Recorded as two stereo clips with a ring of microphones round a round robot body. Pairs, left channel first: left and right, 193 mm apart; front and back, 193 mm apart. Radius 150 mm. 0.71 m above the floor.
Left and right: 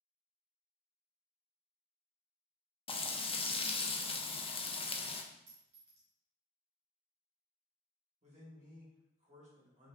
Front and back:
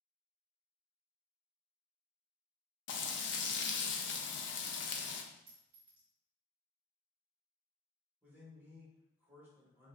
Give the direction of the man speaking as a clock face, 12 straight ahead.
3 o'clock.